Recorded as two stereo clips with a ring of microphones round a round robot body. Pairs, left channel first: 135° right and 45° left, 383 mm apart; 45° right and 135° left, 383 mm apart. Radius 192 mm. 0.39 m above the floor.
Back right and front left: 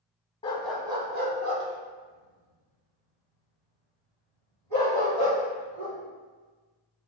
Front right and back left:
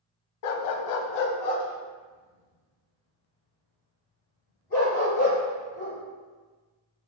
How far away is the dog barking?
About 0.6 m.